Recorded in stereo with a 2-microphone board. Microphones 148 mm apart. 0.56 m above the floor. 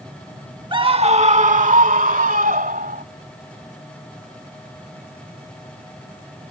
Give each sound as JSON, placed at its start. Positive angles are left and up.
{"t": 0.7, "sound": "a scream", "side_deg": -30}